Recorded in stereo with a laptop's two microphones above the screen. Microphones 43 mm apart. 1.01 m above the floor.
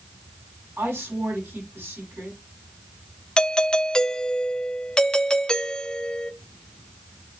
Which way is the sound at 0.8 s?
75° right (ahead or behind).